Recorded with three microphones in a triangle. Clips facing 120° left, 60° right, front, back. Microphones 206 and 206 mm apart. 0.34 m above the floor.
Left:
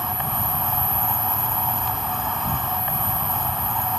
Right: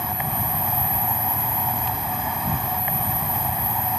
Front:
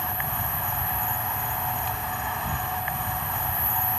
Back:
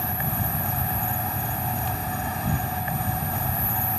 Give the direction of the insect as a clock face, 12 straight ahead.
5 o'clock.